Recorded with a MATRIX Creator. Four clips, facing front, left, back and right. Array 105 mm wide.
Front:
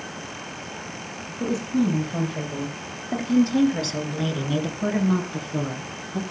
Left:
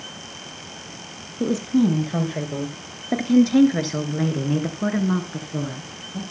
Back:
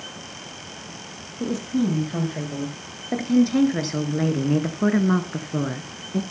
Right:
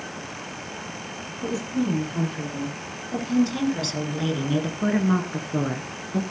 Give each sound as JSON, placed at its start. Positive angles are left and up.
{"t": 1.4, "sound": "a woman speaking", "azimuth_deg": 95, "distance_m": 4.0}